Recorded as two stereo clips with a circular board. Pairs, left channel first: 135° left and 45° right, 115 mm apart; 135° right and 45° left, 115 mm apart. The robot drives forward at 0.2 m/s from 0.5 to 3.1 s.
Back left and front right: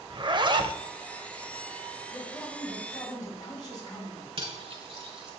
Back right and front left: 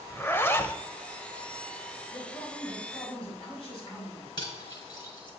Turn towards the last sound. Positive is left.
turn(degrees=-85)